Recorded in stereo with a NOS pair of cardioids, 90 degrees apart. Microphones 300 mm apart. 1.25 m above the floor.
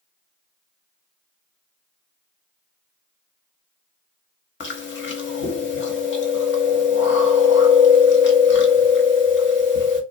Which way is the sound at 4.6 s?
40° left.